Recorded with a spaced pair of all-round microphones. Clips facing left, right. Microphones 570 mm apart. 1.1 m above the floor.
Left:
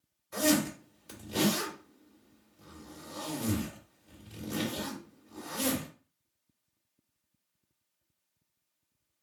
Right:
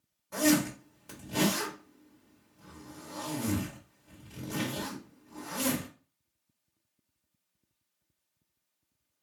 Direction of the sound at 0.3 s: 70° right (ahead or behind).